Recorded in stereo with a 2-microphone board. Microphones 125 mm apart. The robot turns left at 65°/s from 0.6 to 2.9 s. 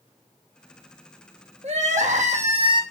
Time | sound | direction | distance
1.6 | crying | 65° right | 1.1 m